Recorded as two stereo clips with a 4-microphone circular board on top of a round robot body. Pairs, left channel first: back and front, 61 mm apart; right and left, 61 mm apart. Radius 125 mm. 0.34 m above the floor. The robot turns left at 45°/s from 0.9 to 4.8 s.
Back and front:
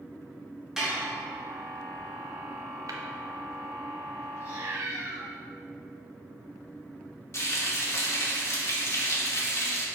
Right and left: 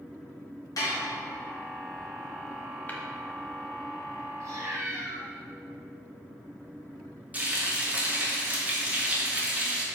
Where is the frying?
155° left, 2 m.